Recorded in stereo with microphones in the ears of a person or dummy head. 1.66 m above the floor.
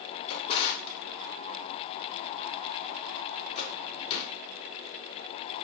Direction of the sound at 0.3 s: 35° left (ahead or behind).